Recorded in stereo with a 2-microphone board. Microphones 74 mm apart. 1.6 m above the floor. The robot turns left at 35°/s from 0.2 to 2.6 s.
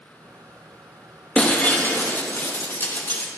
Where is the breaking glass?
140° left, 1.0 m; by 3.3 s 100° left, 1.0 m.